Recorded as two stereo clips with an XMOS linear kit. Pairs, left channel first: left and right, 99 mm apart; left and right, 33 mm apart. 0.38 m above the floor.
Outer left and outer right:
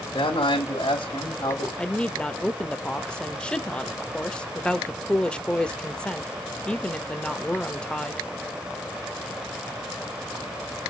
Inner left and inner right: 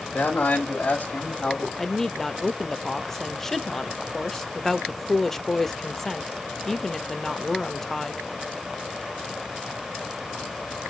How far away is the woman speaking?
About 0.8 m.